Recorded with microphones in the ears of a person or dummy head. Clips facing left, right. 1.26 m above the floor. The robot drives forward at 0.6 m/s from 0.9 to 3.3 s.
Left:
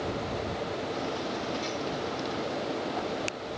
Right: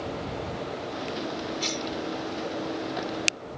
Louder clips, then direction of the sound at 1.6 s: Right 1 dB; 70° right (ahead or behind).